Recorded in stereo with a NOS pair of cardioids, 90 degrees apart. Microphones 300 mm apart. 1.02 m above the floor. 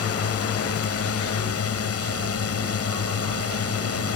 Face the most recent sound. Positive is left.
turn(degrees=55)